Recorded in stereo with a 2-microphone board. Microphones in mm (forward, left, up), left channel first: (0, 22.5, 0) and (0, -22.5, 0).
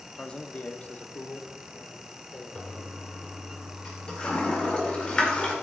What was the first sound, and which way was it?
A man speaking, 15° left (ahead or behind).